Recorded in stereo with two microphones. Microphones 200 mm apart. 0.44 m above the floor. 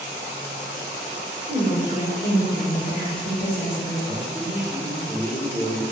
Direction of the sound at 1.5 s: 30° left (ahead or behind).